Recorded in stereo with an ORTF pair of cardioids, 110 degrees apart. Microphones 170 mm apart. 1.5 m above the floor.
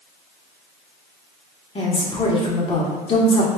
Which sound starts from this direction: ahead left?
A woman speaking, at 1.8 s.